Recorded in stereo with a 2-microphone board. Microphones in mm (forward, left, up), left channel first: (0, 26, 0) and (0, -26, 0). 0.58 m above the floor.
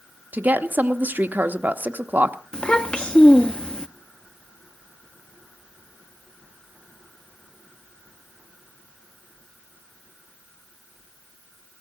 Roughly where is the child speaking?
Centre.